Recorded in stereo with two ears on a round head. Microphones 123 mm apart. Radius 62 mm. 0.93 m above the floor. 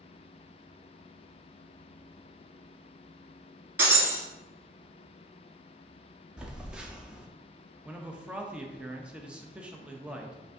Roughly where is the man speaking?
Centre.